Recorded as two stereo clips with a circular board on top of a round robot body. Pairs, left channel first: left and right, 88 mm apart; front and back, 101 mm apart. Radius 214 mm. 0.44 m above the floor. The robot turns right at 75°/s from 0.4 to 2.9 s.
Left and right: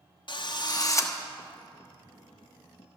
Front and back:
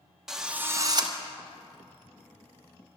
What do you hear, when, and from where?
0.3 s a drill: 95° left, 1.4 m; by 1.1 s 150° left, 1.4 m